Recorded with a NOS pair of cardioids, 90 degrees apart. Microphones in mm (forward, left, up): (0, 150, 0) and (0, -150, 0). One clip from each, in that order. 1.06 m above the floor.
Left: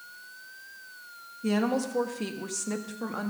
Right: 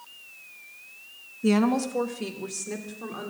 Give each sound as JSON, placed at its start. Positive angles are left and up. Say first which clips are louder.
{"t": 1.4, "sound": "a woman speaking", "louder": "right 4 dB", "azimuth_deg": -30, "distance_m": 1.2}